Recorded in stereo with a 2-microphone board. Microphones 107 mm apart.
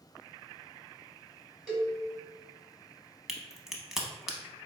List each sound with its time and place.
1.7 s a cowbell: 10° right (ahead or behind), 1.4 m
3.3 s a crack: 5° right (ahead or behind), 0.6 m